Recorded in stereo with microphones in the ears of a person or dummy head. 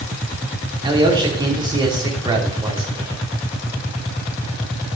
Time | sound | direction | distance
0.8 | a man speaking | 15° right (ahead or behind) | 3 m